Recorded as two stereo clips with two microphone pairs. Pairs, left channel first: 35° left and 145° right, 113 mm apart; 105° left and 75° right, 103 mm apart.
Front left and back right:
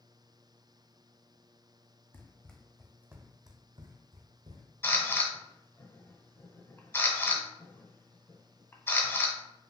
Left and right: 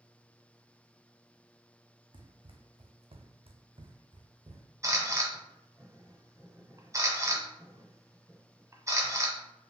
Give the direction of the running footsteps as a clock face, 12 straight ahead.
1 o'clock.